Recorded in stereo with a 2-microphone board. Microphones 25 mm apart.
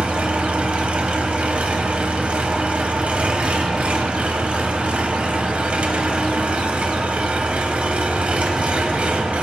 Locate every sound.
0.0 s an engine running: 60° right (ahead or behind), 1.0 m